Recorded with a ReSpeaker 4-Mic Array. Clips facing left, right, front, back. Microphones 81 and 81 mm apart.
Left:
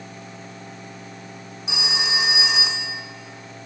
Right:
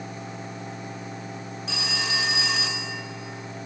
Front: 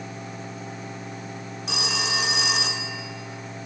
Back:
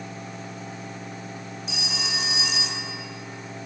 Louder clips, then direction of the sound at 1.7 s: Left 3 dB, front 6 dB; 15° left.